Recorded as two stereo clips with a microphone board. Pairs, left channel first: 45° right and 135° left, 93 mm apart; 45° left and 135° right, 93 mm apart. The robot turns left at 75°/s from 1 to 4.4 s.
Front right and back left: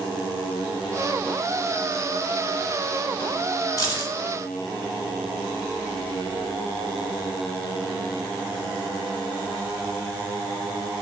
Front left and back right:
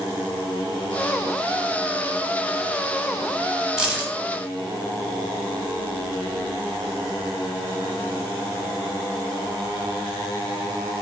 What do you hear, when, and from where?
3.8 s keys jangling: 55° right, 1.0 m; by 4.1 s 80° right, 1.0 m